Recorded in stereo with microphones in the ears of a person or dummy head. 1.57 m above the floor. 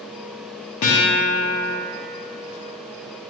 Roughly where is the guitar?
Left.